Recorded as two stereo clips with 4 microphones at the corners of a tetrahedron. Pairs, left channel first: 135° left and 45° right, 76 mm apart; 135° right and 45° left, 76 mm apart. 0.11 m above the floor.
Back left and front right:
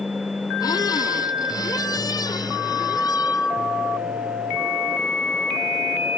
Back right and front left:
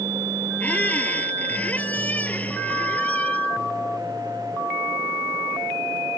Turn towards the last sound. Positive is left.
turn(degrees=155)